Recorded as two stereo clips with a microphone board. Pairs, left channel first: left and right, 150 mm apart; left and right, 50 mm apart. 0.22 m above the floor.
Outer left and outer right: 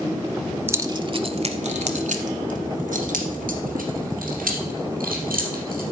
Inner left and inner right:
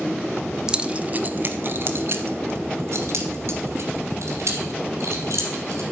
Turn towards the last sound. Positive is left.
turn(degrees=-70)  # may be behind; listen again after turning